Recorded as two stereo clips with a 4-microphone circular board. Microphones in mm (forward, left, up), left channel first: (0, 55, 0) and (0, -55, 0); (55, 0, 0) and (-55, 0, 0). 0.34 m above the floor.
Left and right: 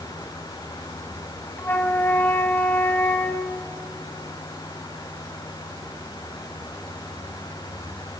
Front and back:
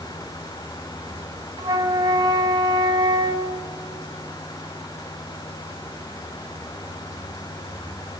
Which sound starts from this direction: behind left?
A flute, at 1.6 s.